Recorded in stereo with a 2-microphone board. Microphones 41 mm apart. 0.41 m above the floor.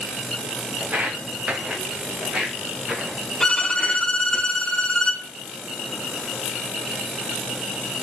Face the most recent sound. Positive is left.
turn(degrees=15)  # may be behind; listen again after turning